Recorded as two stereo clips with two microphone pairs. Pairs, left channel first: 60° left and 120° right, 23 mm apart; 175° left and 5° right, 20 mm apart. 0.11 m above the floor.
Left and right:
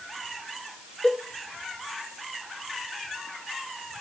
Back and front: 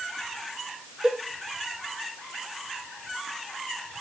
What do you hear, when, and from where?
1.0 s a cowbell: 30° left, 1.1 m